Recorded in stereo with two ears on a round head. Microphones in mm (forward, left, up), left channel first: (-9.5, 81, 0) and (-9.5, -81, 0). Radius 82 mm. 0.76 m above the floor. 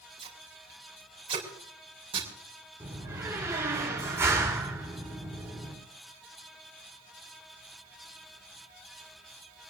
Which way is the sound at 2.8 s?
15° right (ahead or behind).